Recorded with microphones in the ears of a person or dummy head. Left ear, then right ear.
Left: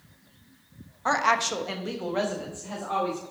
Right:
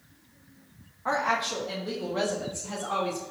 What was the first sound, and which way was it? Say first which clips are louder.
A woman speaking: left 3 dB; 85° left.